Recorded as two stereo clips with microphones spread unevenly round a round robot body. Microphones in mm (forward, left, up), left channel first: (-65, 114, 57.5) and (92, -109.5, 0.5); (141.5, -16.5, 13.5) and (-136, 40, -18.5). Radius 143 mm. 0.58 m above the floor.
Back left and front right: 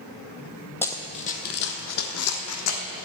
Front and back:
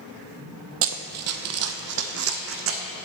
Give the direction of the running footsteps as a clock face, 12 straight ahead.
6 o'clock.